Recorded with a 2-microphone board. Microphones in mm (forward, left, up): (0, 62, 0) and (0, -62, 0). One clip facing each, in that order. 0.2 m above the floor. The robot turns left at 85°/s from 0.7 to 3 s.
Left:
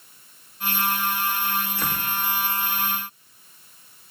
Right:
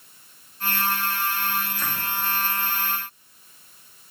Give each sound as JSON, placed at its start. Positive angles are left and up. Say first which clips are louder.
{"t": 1.8, "sound": "a door slam", "louder": "left 2 dB", "side_deg": 75, "distance_m": 8.0}